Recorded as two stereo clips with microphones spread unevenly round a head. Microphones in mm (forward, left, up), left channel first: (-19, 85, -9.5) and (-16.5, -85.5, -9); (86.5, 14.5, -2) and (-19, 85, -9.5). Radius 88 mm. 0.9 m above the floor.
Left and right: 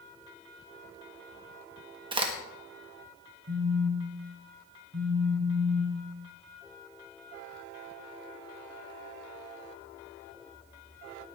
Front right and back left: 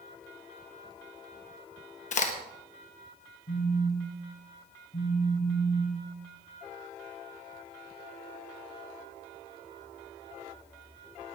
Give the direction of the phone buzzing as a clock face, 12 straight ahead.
2 o'clock.